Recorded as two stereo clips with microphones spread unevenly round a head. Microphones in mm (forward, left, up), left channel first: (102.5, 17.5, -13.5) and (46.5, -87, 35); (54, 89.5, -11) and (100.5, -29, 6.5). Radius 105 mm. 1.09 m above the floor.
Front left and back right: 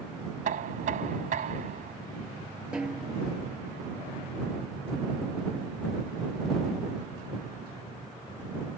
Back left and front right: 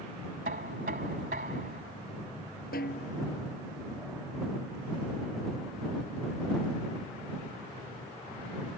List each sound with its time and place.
0.5 s knocking: 120° right
2.7 s a snare drum: 160° left